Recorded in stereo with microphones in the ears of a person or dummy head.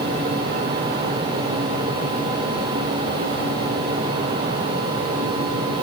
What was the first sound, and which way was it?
Only background noise.